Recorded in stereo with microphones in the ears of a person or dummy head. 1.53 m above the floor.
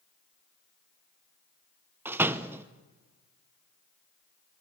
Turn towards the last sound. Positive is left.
turn(degrees=-10)  # may be behind; listen again after turning